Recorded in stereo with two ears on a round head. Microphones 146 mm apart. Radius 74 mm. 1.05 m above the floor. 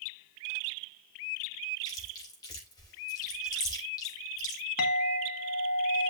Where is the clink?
60° left (ahead or behind), 1.4 m.